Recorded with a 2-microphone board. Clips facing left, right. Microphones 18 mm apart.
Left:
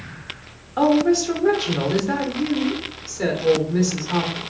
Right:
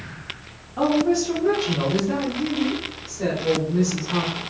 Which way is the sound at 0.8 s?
35° left (ahead or behind).